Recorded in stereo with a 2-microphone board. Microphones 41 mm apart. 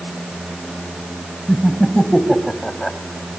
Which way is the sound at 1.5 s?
10° left (ahead or behind).